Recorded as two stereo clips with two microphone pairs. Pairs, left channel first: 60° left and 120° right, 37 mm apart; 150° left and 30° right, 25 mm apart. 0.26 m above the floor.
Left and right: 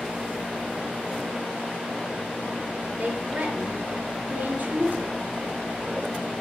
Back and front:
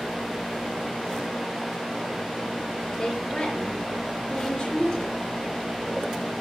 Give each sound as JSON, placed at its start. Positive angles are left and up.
{"t": 3.0, "sound": "a woman speaking", "azimuth_deg": -165, "distance_m": 3.0}